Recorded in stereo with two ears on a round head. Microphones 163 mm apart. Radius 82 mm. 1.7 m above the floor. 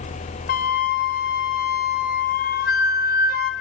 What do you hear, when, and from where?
0.5 s a flute: 50° left (ahead or behind), 1.1 m